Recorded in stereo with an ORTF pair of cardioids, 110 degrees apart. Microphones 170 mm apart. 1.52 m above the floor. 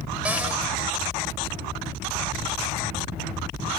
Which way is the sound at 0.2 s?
5° right.